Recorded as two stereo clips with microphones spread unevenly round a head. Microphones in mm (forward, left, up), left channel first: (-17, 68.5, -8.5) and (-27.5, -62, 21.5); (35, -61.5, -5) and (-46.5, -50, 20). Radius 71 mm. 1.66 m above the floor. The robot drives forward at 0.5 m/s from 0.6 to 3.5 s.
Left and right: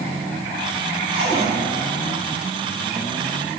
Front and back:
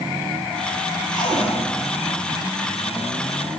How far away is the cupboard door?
About 7 m.